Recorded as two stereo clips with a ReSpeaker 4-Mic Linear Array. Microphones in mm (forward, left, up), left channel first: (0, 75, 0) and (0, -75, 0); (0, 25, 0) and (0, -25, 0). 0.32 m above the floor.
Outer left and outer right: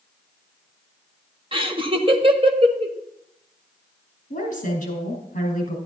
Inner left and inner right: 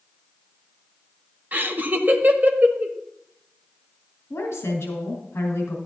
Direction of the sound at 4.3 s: 60° left (ahead or behind).